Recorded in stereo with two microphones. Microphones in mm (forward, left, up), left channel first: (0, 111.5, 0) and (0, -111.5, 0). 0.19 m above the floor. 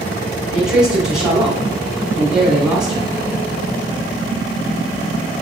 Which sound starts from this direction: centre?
A man speaking, at 0.5 s.